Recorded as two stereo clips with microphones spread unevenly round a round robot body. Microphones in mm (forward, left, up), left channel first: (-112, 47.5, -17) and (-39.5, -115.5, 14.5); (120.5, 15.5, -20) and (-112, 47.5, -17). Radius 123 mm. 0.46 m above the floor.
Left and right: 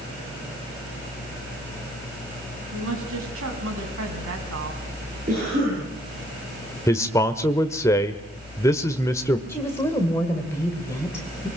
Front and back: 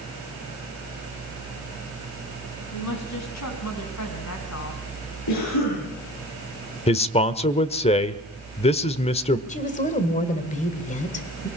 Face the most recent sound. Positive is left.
turn(degrees=45)